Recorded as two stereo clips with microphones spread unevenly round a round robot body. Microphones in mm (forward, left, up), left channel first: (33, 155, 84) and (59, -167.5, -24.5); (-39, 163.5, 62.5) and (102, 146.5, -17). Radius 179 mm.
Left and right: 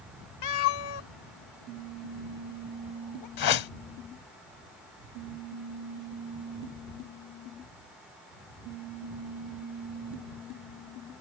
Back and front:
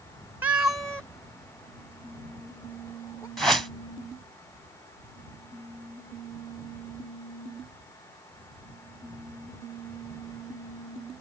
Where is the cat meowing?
70° left; by 3.3 s 110° left.